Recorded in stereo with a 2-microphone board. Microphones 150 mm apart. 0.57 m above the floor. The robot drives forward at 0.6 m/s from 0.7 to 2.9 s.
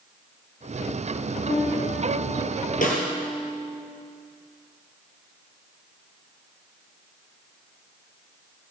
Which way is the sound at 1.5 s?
70° left (ahead or behind).